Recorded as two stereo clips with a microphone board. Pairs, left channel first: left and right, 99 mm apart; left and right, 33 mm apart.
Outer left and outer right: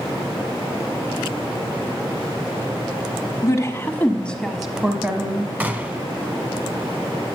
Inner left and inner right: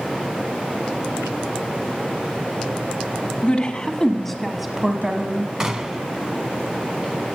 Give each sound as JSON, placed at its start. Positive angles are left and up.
{"t": 3.4, "sound": "a woman speaking", "side_deg": 40, "distance_m": 1.2}
{"t": 5.6, "sound": "a gunshot", "side_deg": -20, "distance_m": 0.7}